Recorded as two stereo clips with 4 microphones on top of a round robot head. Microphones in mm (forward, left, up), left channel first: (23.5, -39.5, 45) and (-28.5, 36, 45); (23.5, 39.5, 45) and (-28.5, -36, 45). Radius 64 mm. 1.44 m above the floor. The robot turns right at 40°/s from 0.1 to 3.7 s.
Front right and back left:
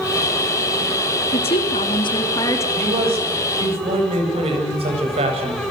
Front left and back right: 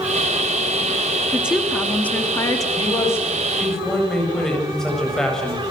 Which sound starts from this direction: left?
A man speaking, at 2.8 s.